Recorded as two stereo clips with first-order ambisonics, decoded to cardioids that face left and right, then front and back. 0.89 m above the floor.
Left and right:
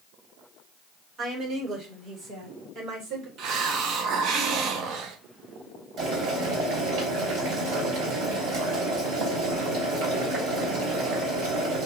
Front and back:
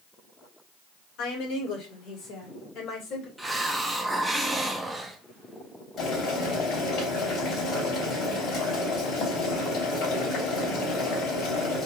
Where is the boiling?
55° right, 3 m.